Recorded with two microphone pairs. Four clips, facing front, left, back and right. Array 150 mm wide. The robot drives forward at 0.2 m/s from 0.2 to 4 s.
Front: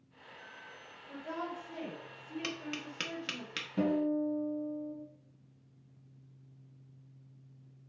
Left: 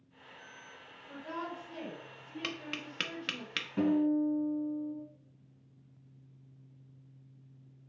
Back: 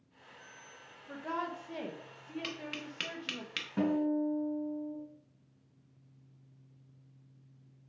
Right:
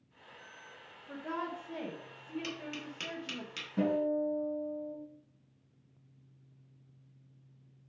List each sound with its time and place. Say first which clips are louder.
1.1 s a woman speaking: right 2 dB, back 2 dB; 160° right, 1.5 m; by 3.4 s 165° right, 2.0 m
2.4 s tapping: even, front 1 dB; 75° left, 1.0 m; by 3.7 s 95° left, 0.9 m
3.8 s a guitar: left 2 dB, even; 160° left, 3.5 m